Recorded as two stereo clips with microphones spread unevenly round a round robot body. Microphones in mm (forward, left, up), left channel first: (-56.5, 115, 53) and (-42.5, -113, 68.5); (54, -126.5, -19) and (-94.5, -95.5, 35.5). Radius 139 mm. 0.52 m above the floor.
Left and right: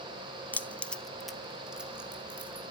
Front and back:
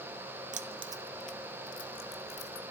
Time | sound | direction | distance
0.5 | keys jangling | 165° left | 0.5 m